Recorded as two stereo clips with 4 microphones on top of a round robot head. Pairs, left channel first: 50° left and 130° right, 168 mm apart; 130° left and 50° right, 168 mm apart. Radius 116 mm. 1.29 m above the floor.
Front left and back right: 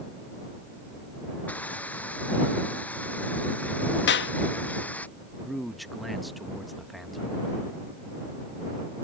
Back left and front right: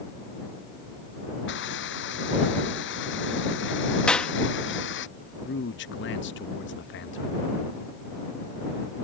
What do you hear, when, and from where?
1.5 s a hiss: 130° left
4.1 s a clap: 45° left
5.4 s a man speaking: 140° left